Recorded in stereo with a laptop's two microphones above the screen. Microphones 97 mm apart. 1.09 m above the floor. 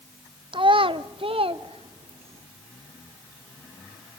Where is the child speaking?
55° right (ahead or behind), 0.6 m; by 2.5 s 70° right (ahead or behind), 1.5 m.